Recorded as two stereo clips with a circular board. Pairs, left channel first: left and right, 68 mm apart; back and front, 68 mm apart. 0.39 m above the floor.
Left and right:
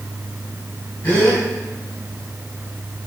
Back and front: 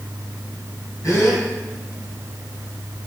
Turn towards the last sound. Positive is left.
turn(degrees=145)